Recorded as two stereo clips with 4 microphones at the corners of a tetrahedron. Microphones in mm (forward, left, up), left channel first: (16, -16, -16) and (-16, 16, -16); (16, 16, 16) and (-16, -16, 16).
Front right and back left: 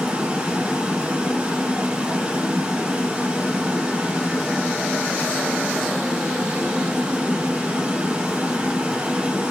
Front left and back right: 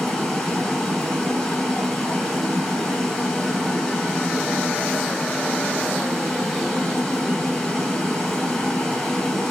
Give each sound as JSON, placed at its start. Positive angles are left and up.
{"t": 0.0, "sound": "running water", "azimuth_deg": 110, "distance_m": 1.4}